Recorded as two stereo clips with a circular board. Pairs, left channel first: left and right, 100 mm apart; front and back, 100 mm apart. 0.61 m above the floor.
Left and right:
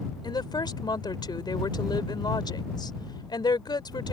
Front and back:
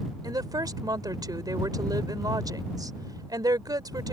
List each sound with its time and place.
0.2 s a woman speaking: 130° left